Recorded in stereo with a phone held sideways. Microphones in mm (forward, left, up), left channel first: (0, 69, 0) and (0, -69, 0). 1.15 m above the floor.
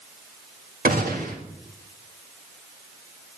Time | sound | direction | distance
0.8 | a gunshot | 80° right | 2 m